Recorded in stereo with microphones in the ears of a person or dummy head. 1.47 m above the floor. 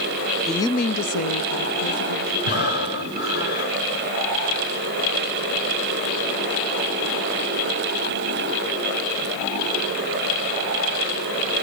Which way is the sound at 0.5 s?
5° right (ahead or behind).